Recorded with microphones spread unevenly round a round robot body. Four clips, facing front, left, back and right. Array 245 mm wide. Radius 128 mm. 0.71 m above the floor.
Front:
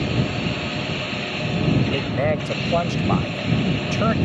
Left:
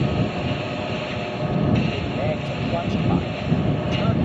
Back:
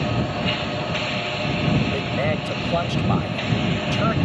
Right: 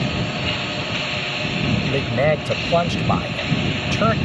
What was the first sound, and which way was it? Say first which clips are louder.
A man speaking: right 5 dB, front 2 dB; 80° right.